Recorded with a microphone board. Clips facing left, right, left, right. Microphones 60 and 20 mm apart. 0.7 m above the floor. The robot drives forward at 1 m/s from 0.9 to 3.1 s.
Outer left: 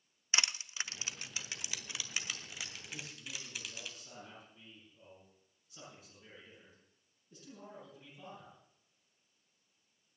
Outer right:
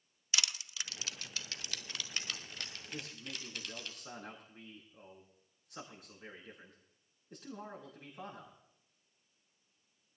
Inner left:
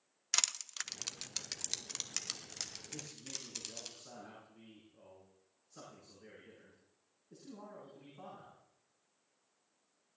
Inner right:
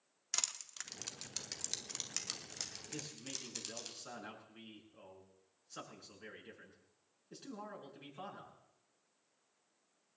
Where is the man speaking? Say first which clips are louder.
Outer right 2 dB, inner right 1 dB; 80° right, 8 m; by 8.6 s 75° right (ahead or behind), 8 m.